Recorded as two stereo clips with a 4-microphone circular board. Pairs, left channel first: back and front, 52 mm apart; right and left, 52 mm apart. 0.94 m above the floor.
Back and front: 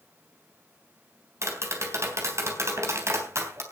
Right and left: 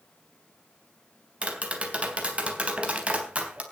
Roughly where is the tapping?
Ahead left.